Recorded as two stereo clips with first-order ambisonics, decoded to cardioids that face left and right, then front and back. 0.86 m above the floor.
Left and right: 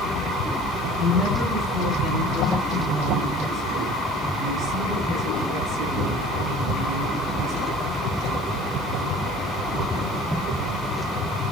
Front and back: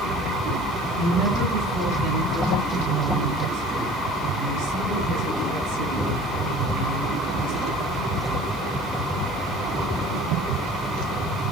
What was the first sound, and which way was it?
A woman speaking, 170° right.